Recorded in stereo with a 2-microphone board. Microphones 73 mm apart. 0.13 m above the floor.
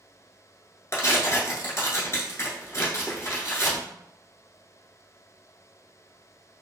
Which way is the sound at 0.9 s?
45° left (ahead or behind).